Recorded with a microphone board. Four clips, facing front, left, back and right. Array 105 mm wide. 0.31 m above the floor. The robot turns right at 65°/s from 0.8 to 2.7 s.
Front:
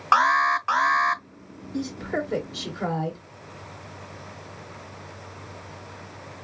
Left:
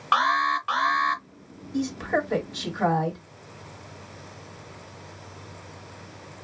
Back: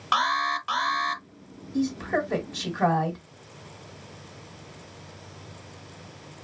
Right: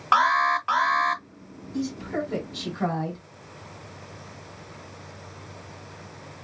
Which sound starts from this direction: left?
A woman speaking, at 1.7 s.